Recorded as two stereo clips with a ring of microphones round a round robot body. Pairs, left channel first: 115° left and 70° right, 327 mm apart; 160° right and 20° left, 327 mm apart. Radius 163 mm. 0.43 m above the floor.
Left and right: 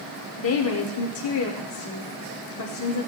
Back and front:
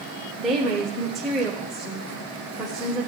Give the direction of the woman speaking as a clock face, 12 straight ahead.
8 o'clock.